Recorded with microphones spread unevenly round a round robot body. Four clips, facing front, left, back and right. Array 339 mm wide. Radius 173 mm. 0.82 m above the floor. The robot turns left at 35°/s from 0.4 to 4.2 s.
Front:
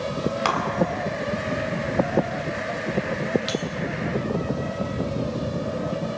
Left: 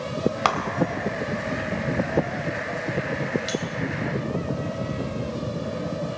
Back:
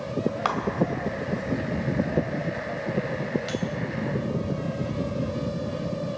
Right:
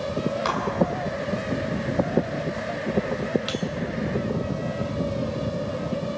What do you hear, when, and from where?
0.5 s breaking glass: 75° left, 2.5 m; by 3.6 s 40° right, 2.5 m